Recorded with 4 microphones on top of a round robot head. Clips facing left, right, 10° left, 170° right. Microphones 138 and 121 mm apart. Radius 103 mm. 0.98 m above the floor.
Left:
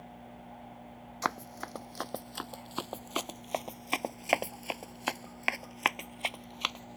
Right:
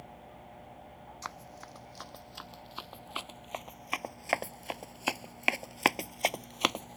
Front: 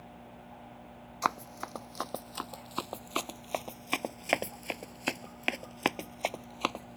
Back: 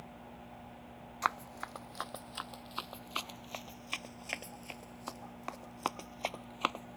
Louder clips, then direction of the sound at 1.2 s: Left 11 dB, front 3 dB; 65° left.